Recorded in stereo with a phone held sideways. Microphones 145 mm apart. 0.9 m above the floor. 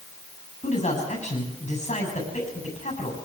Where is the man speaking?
55° left (ahead or behind), 8 m.